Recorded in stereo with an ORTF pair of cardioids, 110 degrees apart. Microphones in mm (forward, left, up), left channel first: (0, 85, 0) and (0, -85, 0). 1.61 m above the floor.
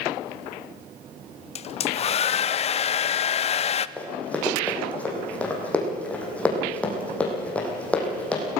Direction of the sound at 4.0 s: 10° left.